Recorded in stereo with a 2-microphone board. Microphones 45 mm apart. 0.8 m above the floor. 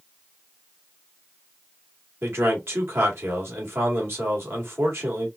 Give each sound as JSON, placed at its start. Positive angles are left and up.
{"t": 2.2, "sound": "a man speaking", "side_deg": -65, "distance_m": 2.0}